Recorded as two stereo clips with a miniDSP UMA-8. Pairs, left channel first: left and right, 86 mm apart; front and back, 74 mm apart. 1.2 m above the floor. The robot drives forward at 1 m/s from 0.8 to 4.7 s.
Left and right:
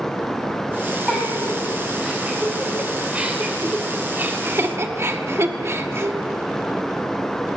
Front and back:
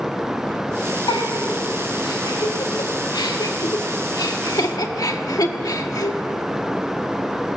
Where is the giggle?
10° right, 5 m; by 6.8 s 30° right, 1.3 m.